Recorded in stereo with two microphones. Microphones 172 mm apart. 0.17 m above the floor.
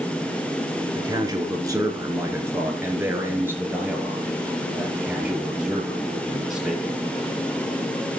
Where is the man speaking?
25° right (ahead or behind), 3 m; by 7.0 s centre (ahead or behind), 5.5 m.